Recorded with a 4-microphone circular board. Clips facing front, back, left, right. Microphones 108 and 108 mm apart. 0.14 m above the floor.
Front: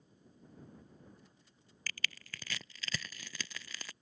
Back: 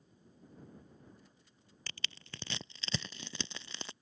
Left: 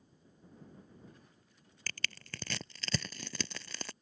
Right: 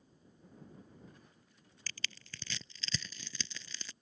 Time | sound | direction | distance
1.9 | crushing | 120° left | ?